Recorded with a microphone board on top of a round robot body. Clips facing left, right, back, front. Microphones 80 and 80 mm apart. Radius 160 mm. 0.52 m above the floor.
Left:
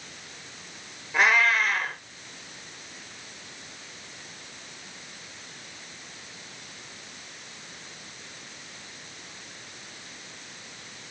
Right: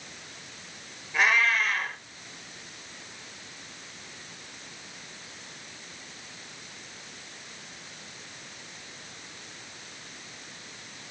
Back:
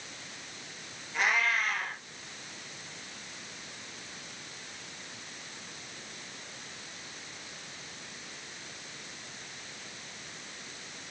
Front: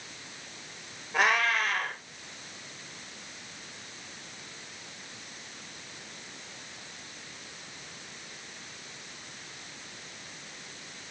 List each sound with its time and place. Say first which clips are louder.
1.1 s a cat meowing: left 2 dB, front 3 dB; 40° left, 5.5 m